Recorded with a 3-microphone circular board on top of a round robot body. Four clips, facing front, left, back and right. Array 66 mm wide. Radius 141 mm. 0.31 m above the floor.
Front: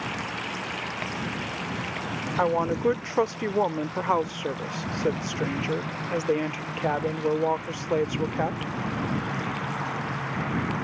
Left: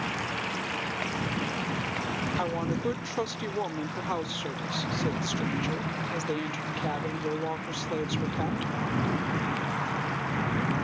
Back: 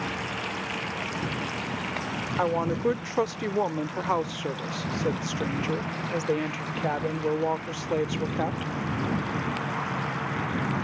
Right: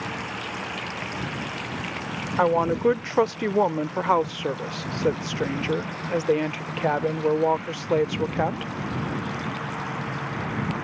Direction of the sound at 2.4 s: 75° right.